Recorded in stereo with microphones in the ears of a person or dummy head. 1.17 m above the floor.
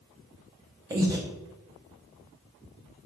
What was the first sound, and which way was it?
Breathing, 20° right (ahead or behind).